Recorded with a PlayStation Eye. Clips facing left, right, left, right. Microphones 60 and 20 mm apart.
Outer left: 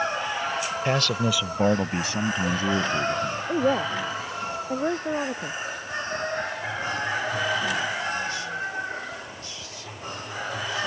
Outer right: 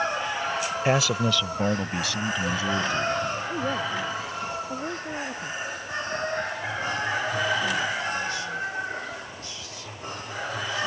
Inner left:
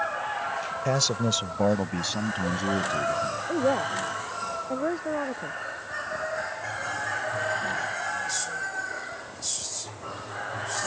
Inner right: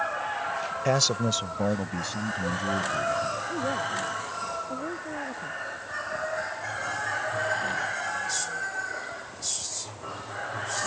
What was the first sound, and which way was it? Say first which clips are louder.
A man speaking: outer right 2 dB, inner right 1 dB; 15° right (ahead or behind).